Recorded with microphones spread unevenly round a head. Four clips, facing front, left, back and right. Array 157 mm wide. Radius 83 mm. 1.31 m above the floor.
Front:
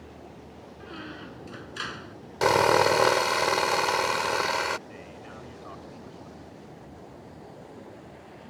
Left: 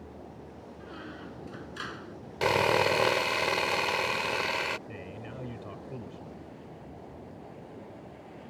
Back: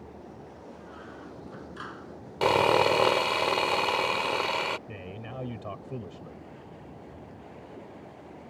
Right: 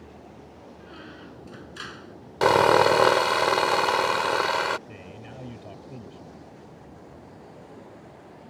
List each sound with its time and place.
0.8 s a squeak: 15° right
2.4 s sawing: 90° right
4.9 s a man speaking: 165° left